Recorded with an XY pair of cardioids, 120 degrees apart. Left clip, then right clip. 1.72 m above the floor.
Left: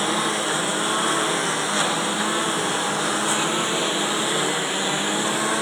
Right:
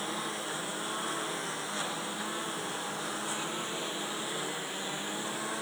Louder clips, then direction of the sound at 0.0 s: Left 13 dB; 60° left.